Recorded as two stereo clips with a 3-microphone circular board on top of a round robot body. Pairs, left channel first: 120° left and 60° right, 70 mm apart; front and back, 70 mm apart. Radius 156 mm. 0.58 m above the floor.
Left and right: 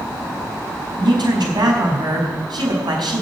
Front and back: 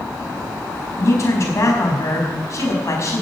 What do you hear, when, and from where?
1.0 s a man speaking: 45° right, 5 m